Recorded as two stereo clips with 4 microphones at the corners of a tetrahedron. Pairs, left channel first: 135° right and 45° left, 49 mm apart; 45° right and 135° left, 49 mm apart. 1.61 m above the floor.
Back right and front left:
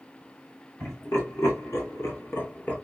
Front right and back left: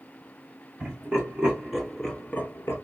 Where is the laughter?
165° right, 2 m; by 2.8 s 70° right, 1.0 m.